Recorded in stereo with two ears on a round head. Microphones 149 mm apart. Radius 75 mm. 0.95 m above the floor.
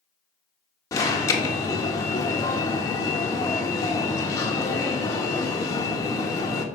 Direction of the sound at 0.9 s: 20° left (ahead or behind).